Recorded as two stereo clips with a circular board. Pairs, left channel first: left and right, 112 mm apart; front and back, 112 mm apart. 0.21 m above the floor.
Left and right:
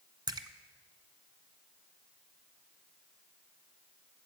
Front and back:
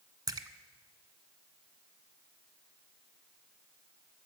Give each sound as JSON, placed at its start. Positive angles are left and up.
{"t": 0.3, "sound": "a splash", "azimuth_deg": -135, "distance_m": 0.5}